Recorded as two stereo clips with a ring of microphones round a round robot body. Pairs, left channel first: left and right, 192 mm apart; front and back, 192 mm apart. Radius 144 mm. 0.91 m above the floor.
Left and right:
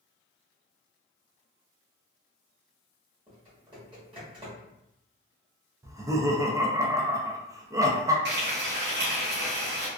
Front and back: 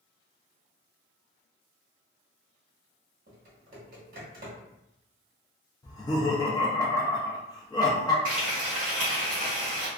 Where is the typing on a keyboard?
150° right, 1.0 m.